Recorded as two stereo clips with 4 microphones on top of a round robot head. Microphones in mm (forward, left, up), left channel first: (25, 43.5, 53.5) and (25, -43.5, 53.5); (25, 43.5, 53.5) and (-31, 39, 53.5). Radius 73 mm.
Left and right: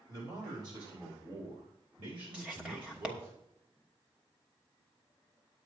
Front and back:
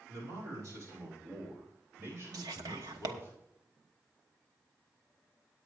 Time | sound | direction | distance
0.1 | a man speaking | 140° right | 7 m
2.3 | whispering | 170° right | 1.2 m